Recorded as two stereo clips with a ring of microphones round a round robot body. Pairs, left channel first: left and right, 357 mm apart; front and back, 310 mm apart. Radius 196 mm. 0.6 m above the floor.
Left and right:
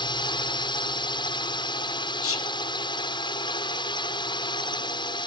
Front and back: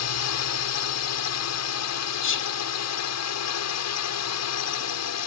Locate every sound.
0.0 s a drone: 15° left
2.2 s whispering: 45° left